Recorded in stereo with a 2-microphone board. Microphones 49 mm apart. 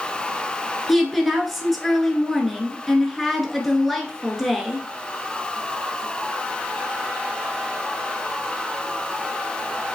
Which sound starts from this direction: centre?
A woman speaking, at 0.9 s.